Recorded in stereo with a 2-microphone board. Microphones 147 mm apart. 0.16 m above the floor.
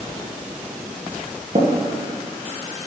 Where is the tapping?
45° right (ahead or behind), 3 m.